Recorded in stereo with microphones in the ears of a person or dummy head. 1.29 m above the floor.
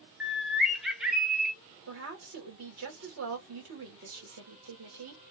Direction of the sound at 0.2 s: 5° right (ahead or behind).